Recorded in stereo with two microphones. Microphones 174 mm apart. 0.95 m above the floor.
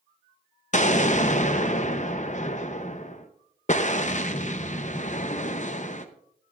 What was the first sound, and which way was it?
An explosion, 45° left (ahead or behind).